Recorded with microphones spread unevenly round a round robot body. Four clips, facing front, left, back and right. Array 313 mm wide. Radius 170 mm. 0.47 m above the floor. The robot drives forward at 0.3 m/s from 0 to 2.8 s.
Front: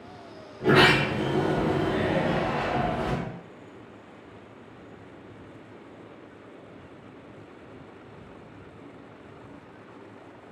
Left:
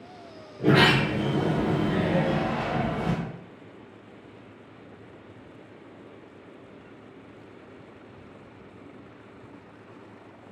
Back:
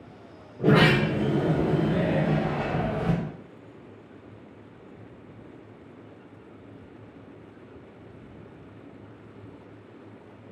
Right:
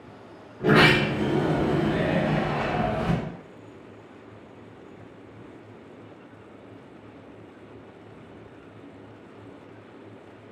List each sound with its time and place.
0.6 s a sliding door: 165° left, 0.9 m; by 3.2 s 170° left, 1.6 m